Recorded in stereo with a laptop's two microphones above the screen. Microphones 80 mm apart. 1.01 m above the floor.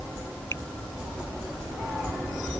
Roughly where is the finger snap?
Left.